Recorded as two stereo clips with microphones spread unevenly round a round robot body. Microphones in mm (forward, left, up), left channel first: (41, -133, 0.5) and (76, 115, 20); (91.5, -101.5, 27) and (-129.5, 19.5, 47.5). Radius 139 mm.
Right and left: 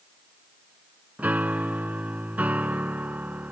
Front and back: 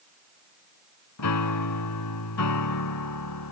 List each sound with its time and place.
1.2 s a piano: straight ahead